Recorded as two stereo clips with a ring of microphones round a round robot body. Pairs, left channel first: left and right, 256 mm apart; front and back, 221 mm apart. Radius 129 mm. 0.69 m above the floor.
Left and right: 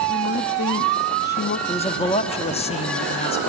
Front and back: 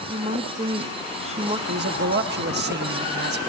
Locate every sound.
0.1 s a woman speaking: 125° left, 0.7 m
1.7 s a man speaking: 155° left, 1.0 m